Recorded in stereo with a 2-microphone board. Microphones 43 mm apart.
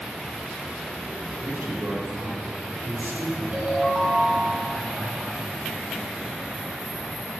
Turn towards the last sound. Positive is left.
turn(degrees=-35)  # may be behind; listen again after turning